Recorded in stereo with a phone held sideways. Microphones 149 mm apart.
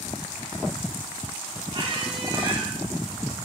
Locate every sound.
1.7 s a squeak: 40° right (ahead or behind), 2 m